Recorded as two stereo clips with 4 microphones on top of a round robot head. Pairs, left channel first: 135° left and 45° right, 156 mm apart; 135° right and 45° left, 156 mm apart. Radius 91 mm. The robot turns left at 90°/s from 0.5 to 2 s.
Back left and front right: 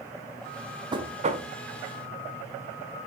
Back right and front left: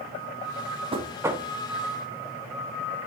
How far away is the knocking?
About 0.9 m.